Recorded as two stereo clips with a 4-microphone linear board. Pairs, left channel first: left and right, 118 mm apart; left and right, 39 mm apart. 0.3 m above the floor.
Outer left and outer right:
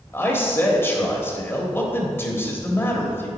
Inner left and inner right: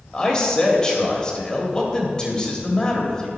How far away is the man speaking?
About 1.3 m.